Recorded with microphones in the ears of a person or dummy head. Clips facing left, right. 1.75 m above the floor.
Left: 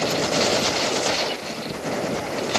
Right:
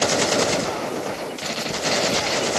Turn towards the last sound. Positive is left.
No sound to turn to.